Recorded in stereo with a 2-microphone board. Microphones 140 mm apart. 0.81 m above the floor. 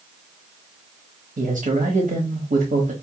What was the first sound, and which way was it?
A man speaking, 70° right (ahead or behind).